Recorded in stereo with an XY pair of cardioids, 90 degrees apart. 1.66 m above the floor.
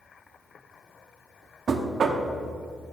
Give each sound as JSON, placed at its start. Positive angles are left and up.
{"t": 1.7, "sound": "knocking", "azimuth_deg": -55, "distance_m": 0.8}